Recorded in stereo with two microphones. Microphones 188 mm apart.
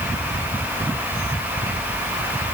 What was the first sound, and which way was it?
Only background noise.